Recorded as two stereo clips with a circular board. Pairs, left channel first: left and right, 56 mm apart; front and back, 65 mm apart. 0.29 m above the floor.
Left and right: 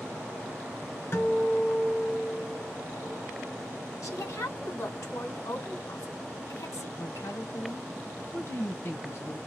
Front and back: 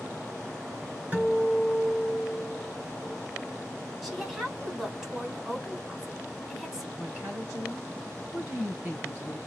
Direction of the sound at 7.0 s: 115° left.